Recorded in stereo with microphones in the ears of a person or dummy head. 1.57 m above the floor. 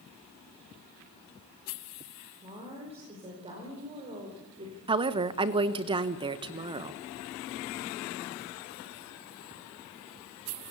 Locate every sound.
2.4 s a woman speaking: 25° right (ahead or behind), 5 m
4.9 s a woman speaking: 25° right (ahead or behind), 1.1 m